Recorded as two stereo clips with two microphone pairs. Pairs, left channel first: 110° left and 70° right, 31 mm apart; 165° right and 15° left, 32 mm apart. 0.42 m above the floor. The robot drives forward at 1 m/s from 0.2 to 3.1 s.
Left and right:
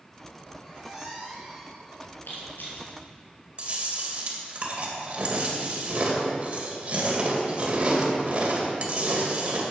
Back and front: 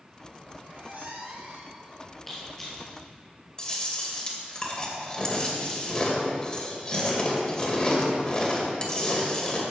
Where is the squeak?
5° left, 3 m; by 2.2 s 10° left, 1.7 m.